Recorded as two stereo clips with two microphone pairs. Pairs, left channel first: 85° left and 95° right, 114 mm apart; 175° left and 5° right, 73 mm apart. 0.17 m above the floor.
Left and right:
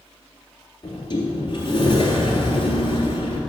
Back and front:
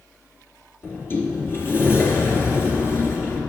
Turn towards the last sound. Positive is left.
turn(degrees=125)